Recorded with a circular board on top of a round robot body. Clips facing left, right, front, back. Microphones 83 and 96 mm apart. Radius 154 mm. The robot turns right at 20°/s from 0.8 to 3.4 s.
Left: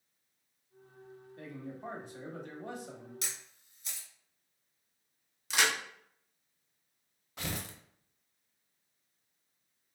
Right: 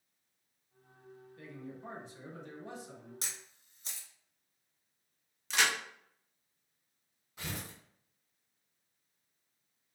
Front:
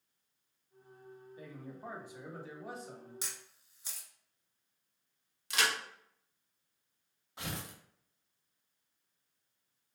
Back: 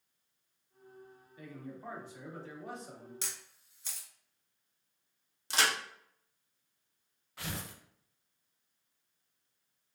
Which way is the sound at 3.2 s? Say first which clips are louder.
Left 2 dB, back 1 dB; 75° right.